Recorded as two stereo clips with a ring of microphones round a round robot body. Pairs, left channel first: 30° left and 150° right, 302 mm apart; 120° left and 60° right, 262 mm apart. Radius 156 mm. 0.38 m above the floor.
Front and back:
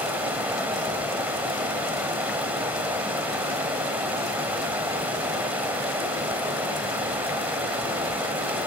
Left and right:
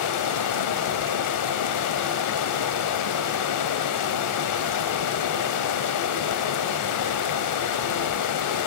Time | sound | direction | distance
0.0 | running water | 125° left | 0.8 m